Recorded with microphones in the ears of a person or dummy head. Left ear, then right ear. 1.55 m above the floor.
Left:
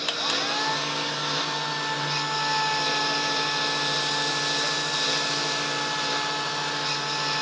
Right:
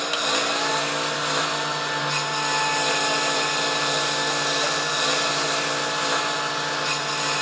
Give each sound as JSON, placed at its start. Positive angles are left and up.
{"t": 0.0, "sound": "a lawn mower", "side_deg": -40}